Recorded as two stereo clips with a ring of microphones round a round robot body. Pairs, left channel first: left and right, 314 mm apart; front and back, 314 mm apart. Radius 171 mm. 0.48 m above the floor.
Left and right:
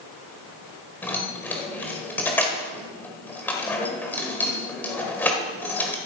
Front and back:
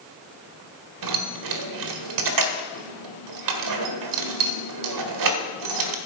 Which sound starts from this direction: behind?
Keys jangling, at 1.0 s.